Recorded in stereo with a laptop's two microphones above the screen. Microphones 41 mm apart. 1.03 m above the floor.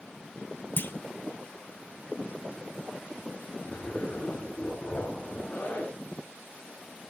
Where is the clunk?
55° left (ahead or behind), 0.7 m.